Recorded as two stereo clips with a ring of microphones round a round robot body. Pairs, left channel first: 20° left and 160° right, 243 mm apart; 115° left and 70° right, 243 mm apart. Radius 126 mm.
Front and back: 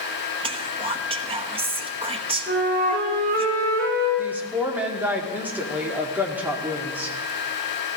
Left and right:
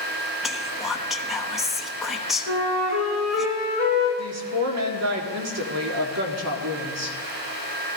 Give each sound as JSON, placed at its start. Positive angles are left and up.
{"t": 0.4, "sound": "whispering", "azimuth_deg": -155, "distance_m": 1.1}
{"t": 2.5, "sound": "a flute", "azimuth_deg": -100, "distance_m": 8.0}
{"t": 4.2, "sound": "a woman speaking", "azimuth_deg": -75, "distance_m": 1.9}